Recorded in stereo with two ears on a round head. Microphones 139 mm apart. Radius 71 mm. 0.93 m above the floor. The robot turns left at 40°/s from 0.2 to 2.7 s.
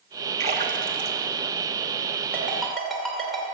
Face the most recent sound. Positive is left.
turn(degrees=0)  # may be behind; listen again after turning